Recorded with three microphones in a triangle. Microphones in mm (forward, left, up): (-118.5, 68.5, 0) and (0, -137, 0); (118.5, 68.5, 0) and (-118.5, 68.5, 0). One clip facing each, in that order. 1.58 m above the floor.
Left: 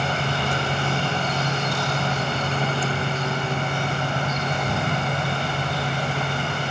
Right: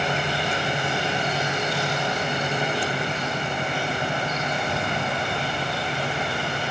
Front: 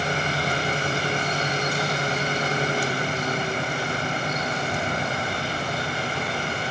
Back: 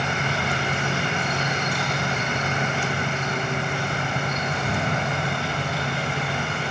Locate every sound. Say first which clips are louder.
0.0 s an insect: even, front 1 dB; 165° left, 9 m